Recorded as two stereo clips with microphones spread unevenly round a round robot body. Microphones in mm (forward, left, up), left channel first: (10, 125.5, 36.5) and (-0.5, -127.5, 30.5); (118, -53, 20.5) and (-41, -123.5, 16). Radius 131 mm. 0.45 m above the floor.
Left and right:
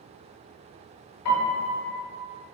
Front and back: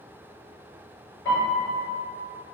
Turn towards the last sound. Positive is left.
turn(degrees=95)